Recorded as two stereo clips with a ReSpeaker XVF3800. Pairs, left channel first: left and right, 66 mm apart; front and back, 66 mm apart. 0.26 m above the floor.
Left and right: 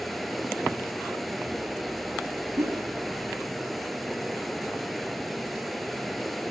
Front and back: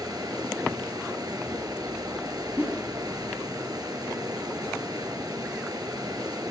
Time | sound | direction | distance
0.0 | running water | straight behind | 1.7 m
2.6 | a whoosh | 115° right | 3.5 m